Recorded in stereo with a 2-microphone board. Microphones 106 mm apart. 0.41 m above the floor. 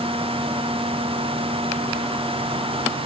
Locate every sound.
Only background noise.